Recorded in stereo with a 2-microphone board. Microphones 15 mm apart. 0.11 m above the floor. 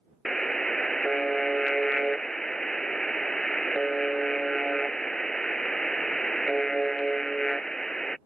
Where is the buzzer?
30° left (ahead or behind).